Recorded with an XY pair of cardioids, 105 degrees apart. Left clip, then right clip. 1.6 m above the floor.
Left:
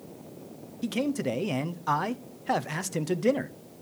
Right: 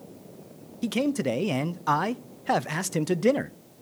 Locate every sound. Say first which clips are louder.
0.8 s a man speaking: right 3 dB; 25° right, 0.6 m